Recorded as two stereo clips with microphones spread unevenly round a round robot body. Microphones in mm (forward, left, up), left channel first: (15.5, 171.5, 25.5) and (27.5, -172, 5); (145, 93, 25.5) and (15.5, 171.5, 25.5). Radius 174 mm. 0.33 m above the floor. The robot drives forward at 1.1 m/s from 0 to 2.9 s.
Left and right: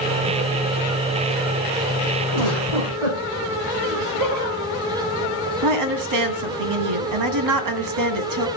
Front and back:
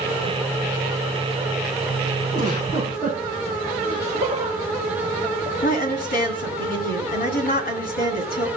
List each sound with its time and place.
2.3 s a giggle: 105° right, 8 m; by 3.2 s 110° right, 8.5 m
3.8 s laughter: 100° right, 9.5 m
5.6 s a woman speaking: 60° right, 2.5 m